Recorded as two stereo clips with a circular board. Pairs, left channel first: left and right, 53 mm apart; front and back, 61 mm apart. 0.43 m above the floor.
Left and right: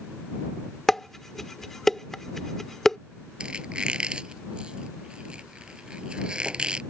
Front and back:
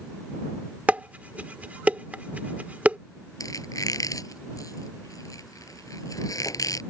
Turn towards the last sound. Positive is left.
turn(degrees=-20)